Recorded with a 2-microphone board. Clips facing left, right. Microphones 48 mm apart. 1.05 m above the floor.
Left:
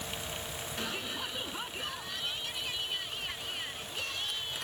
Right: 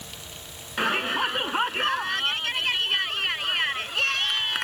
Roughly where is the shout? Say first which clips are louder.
Right 15 dB; right.